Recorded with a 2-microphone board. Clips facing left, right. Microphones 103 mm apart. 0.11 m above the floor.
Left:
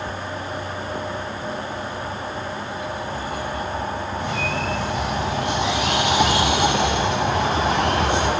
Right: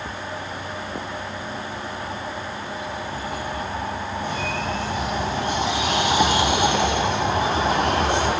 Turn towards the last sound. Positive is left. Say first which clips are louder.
# left 1 dB
turn(degrees=70)  # may be behind; listen again after turning